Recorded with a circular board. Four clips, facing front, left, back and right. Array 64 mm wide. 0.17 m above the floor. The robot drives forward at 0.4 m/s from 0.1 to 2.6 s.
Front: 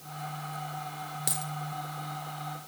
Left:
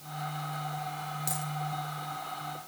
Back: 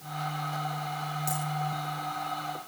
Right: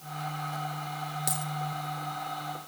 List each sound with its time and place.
1.3 s a dropped coin: 30° right, 3 m